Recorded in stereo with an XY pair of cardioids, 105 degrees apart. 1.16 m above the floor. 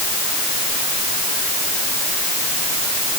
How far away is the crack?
No crack in this recording.